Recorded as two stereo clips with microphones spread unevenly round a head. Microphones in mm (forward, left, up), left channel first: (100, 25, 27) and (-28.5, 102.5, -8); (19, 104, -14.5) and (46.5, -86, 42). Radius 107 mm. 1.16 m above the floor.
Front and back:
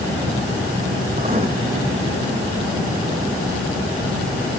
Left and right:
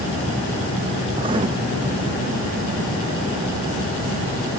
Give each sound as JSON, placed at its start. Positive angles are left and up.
{"t": 1.2, "sound": "writing", "azimuth_deg": -145, "distance_m": 0.6}